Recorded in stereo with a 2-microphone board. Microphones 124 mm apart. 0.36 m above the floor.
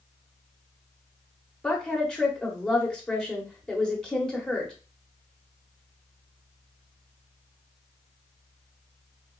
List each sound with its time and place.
1.6 s a woman speaking: 5° left (ahead or behind), 1.0 m